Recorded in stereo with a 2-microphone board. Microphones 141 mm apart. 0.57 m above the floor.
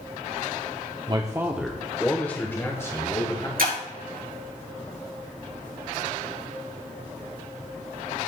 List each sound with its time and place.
1.1 s a man speaking: 35° right (ahead or behind), 0.8 m; by 3.5 s 25° left (ahead or behind), 2.5 m
3.6 s breaking glass: 85° right, 5 m